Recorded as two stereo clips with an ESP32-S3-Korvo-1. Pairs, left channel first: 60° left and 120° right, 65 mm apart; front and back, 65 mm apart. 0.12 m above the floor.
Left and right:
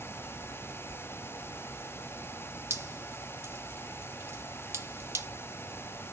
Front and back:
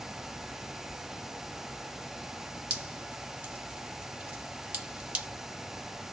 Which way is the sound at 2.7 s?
130° right.